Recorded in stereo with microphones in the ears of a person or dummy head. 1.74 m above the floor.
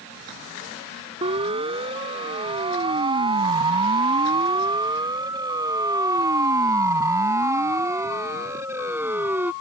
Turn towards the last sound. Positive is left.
turn(degrees=-10)  # may be behind; listen again after turning